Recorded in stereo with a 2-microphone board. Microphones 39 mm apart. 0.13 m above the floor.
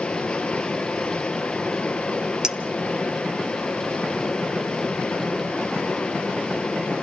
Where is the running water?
25° left (ahead or behind), 1.6 m.